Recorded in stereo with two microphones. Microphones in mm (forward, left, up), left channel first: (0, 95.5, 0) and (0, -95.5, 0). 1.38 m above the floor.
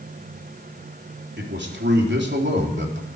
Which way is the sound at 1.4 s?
80° right.